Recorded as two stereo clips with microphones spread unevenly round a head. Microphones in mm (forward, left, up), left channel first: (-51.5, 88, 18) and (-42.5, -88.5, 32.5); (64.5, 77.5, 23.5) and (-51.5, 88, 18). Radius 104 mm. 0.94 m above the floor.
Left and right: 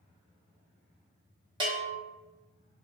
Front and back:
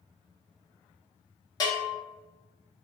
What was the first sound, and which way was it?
A bell, 40° right.